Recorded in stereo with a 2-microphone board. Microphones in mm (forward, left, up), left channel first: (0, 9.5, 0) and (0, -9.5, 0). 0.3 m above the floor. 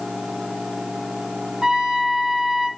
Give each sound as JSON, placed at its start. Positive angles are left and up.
{"t": 1.6, "sound": "a trumpet", "side_deg": -45, "distance_m": 2.0}